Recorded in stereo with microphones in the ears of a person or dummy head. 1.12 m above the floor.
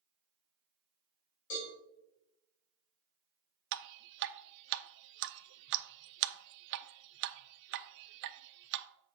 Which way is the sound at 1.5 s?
65° left (ahead or behind).